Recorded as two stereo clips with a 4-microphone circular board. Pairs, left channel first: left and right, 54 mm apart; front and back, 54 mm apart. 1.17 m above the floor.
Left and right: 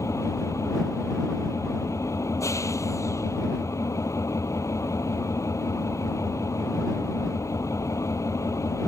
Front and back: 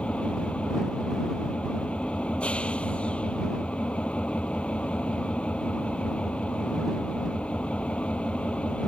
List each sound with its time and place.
0.0 s an engine running: 70° left